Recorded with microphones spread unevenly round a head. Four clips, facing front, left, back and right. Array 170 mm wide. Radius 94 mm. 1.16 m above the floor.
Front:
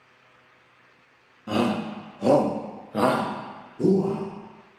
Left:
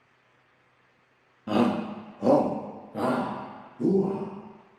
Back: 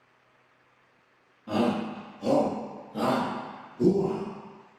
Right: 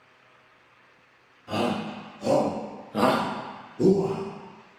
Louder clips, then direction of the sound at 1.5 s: Left 3 dB, front 2 dB; 55° left.